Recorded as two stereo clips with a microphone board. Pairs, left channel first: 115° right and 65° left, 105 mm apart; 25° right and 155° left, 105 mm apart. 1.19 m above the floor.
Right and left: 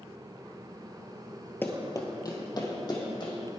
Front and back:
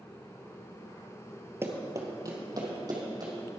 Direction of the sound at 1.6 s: 160° right.